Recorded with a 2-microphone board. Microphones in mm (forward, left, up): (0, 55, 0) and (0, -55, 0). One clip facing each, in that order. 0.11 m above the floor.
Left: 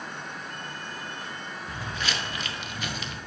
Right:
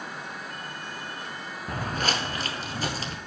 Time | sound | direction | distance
1.7 | footsteps | 45° right (ahead or behind) | 0.6 m